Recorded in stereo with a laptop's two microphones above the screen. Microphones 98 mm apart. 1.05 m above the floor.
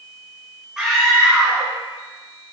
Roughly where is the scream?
Centre.